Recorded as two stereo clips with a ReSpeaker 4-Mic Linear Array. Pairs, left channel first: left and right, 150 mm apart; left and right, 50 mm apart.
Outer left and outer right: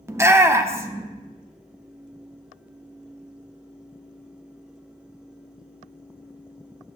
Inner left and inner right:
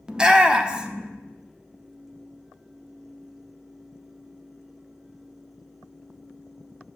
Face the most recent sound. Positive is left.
turn(degrees=-20)  # may be behind; listen again after turning